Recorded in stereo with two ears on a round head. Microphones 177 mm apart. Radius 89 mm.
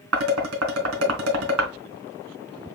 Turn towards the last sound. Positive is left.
turn(degrees=-80)